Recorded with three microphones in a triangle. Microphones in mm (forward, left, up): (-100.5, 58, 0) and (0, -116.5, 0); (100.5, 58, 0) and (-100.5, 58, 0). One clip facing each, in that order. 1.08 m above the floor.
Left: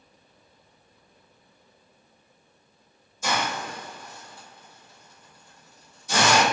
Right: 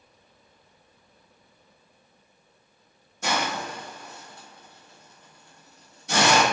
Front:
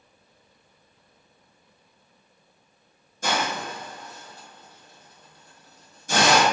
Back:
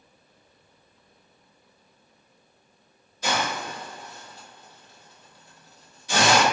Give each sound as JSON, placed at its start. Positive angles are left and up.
{"t": 3.2, "sound": "a hiss", "azimuth_deg": -40, "distance_m": 1.0}